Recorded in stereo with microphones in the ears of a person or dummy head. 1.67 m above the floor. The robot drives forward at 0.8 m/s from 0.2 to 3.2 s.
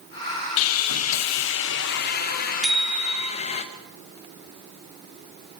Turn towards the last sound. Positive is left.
turn(degrees=0)  # may be behind; listen again after turning